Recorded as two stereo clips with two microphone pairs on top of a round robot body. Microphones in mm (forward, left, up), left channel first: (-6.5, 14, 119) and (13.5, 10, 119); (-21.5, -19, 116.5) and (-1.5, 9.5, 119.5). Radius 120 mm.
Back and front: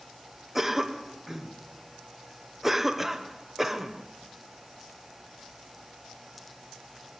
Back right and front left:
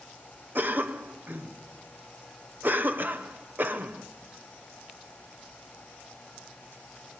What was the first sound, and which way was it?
A cough, 65° left.